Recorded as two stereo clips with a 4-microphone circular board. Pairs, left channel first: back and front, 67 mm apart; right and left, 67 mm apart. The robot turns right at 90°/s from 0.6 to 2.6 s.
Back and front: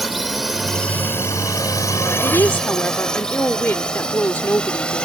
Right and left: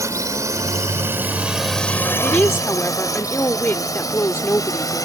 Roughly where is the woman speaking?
Behind.